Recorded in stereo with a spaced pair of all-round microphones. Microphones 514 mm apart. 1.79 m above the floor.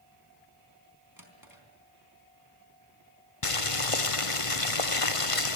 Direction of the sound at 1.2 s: 40° right (ahead or behind).